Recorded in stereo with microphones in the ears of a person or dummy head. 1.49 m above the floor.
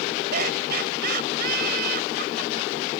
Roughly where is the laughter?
Right.